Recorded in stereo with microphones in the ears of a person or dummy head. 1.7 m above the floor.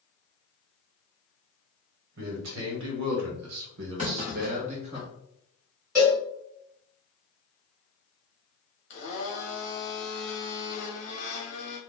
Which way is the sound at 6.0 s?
Centre (ahead or behind).